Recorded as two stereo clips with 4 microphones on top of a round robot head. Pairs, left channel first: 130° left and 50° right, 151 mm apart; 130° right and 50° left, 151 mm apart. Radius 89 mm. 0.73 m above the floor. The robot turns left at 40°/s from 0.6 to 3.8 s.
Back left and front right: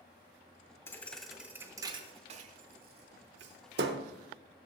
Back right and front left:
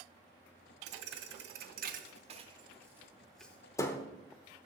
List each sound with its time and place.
0.9 s a thud: 55° left, 0.8 m; by 4.1 s 60° right, 0.8 m